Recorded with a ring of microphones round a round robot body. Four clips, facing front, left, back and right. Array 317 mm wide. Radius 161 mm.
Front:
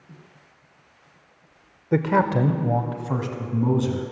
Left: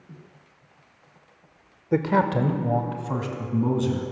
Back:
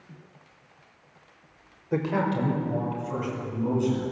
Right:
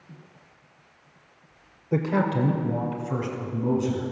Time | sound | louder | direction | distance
1.9 | a man speaking | left 3 dB, front 6 dB | 25° left | 0.9 m